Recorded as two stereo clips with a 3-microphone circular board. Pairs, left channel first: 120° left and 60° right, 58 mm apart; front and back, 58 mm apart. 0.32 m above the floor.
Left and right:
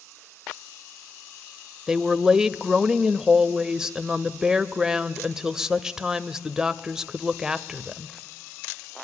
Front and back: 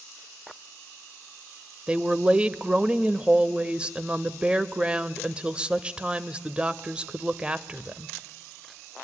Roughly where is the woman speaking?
Behind right.